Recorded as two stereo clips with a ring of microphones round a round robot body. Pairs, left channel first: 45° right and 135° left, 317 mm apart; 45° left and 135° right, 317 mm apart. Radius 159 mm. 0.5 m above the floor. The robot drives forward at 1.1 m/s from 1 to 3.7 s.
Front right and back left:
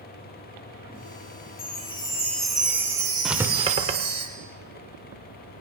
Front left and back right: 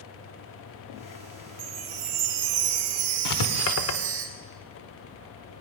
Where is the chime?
100° right, 1.6 m; by 4.2 s 155° right, 3 m.